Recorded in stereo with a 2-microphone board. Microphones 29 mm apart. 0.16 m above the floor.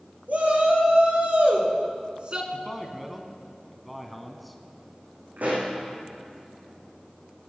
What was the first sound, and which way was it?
A shout, 65° right (ahead or behind).